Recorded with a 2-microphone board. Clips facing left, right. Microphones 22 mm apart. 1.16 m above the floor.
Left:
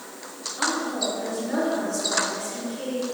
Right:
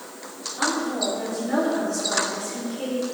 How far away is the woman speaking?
About 3.5 m.